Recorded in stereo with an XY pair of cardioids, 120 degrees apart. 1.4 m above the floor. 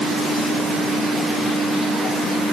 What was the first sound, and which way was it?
Only background noise.